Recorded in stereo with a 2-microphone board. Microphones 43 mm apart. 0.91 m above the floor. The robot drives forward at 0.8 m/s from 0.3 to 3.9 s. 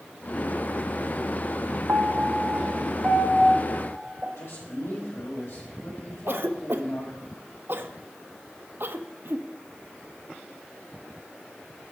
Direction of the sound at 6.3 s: 55° right (ahead or behind).